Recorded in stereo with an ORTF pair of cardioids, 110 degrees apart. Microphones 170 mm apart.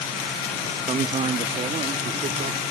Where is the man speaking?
30° right; by 2.6 s 50° right.